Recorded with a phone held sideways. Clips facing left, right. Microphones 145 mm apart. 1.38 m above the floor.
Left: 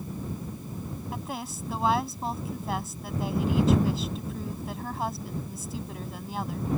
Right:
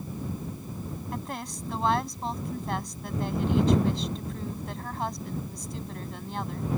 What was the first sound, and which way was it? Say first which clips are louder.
A woman speaking: even; 5° left (ahead or behind).